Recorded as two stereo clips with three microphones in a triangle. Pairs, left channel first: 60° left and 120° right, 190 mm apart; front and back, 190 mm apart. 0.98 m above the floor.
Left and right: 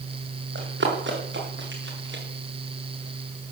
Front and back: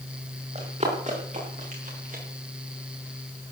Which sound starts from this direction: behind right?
Running footsteps, at 0.6 s.